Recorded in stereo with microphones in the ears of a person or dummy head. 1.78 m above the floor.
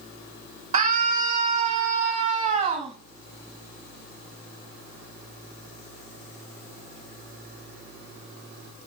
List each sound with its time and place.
0.7 s a scream: 45° right (ahead or behind), 9 m; by 3.0 s 35° right (ahead or behind), 10.5 m